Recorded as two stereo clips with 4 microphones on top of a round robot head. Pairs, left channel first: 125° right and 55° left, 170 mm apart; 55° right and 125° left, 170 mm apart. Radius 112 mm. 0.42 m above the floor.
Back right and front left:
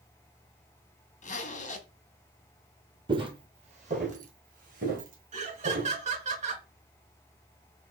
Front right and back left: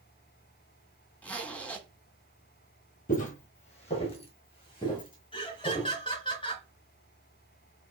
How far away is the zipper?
About 1.3 m.